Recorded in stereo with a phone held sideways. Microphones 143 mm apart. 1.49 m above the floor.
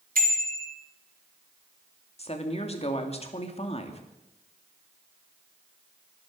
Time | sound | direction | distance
0.1 | a bicycle bell | 85° right | 3.5 m
2.2 | a woman speaking | 45° left (ahead or behind) | 2.5 m